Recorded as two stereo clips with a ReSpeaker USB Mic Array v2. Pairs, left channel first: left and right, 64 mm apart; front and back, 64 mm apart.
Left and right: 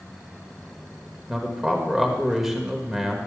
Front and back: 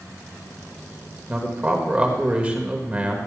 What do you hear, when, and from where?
1.3 s a man speaking: 165° right, 1.5 m